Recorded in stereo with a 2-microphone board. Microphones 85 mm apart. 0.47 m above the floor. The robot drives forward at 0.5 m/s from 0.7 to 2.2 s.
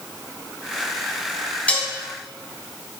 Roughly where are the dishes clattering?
Centre.